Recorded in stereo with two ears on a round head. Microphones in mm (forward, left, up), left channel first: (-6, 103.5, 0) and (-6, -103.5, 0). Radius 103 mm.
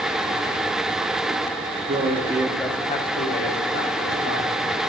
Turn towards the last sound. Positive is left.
turn(degrees=75)  # may be behind; listen again after turning